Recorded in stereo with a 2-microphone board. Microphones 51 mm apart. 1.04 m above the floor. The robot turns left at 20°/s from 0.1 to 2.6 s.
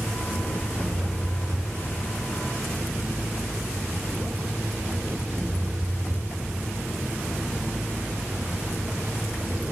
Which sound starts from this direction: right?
An engine running, at 0.0 s.